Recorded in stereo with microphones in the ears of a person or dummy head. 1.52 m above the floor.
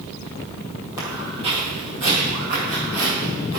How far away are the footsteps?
About 2.5 m.